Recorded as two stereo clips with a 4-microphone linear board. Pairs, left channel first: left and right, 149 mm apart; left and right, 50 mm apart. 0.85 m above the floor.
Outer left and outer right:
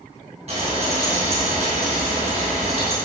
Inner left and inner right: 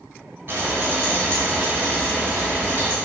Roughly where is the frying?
Right.